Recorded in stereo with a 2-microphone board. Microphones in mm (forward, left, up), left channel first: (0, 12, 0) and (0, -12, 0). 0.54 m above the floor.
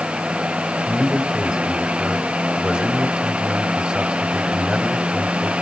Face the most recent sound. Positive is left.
turn(degrees=-45)  # may be behind; listen again after turning